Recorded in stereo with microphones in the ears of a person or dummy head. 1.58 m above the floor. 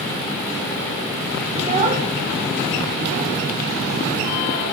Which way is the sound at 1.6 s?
30° right (ahead or behind).